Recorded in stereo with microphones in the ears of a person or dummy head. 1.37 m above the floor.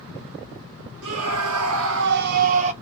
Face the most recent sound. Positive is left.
turn(degrees=-35)  # may be behind; listen again after turning